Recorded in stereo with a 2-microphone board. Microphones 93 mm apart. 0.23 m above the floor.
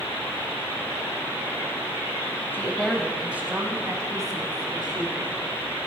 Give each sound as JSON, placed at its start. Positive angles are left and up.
{"t": 2.5, "sound": "a woman speaking", "side_deg": 25, "distance_m": 1.0}